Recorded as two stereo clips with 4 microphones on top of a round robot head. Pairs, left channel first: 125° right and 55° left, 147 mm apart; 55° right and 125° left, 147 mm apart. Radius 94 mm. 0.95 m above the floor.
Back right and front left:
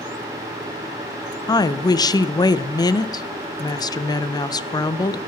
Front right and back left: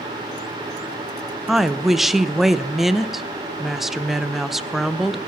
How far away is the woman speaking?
About 0.5 m.